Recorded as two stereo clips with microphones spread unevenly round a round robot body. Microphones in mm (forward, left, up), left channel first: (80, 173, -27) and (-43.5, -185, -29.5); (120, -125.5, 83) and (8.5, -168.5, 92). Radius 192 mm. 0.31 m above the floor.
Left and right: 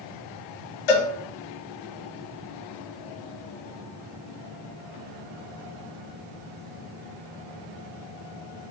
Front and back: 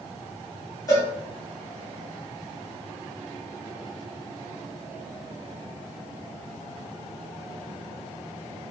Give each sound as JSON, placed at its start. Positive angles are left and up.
{"t": 0.9, "sound": "a cowbell", "azimuth_deg": 90, "distance_m": 0.6}